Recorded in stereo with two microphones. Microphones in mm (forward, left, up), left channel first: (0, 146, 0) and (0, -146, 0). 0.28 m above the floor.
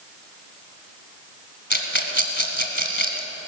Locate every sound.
1.7 s a rattle: 40° left (ahead or behind), 1.6 m